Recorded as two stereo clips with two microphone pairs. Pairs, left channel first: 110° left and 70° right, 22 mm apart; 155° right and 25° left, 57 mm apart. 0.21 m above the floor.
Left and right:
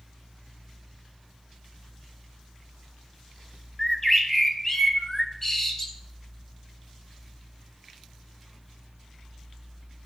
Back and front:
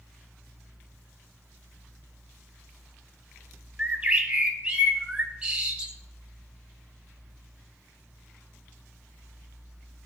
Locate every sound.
3.8 s a bird: 60° left, 0.8 m